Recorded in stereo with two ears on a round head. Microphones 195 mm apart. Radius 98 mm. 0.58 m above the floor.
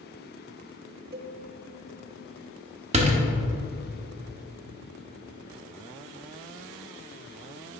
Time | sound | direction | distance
1.1 | a cowbell | 45° right (ahead or behind) | 0.9 m
2.9 | a door slam | 30° right (ahead or behind) | 0.9 m